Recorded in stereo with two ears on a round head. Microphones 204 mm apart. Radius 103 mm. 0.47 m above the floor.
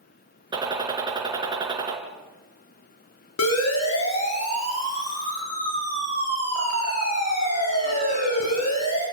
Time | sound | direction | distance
0.5 | a gunshot | 20° right (ahead or behind) | 3.5 m
3.4 | a siren | 75° left (ahead or behind) | 9 m